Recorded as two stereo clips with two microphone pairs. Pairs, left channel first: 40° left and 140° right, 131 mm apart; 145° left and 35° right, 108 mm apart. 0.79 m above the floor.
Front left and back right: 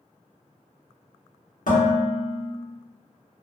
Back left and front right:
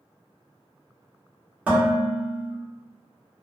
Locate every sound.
1.7 s dishes clattering: 40° left, 1.3 m